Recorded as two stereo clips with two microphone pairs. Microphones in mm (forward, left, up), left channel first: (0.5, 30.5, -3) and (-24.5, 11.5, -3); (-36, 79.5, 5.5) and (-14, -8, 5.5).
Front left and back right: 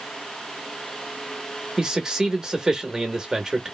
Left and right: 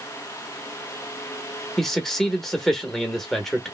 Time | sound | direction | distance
1.8 | a man speaking | 175° left | 0.8 m